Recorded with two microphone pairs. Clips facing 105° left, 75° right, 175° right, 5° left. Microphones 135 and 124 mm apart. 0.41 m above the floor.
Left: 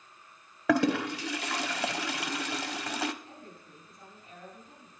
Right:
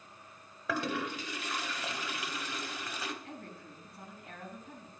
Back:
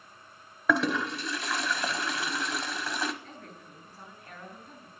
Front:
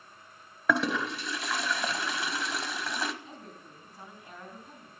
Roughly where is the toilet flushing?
Left.